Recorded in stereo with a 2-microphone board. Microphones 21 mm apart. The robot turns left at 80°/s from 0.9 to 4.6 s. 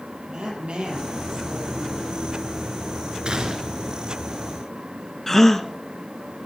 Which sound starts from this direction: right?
A woman speaking, at 0.3 s.